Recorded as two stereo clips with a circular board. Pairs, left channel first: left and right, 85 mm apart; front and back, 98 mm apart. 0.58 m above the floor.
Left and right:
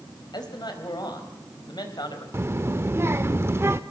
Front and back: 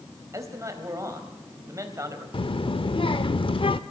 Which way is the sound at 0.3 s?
125° left.